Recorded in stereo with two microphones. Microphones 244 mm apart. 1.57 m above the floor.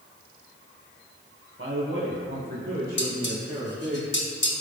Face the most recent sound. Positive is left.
turn(degrees=50)  # may be behind; listen again after turning